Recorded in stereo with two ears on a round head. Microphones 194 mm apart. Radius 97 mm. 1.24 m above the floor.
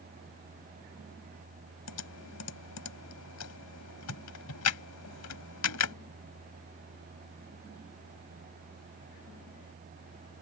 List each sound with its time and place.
1.9 s typing on a keyboard: 85° left